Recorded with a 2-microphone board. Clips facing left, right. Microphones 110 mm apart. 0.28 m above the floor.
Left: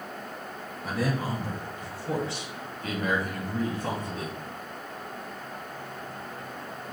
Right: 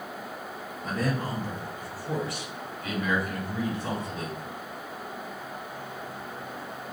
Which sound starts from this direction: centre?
A man speaking, at 0.8 s.